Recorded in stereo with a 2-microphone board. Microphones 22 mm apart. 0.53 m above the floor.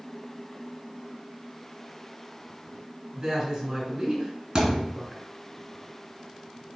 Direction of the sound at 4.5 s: 25° right (ahead or behind).